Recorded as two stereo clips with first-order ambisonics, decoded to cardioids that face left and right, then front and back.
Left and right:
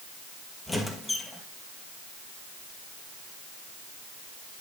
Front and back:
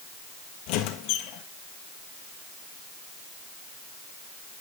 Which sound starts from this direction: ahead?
A squeak, at 0.7 s.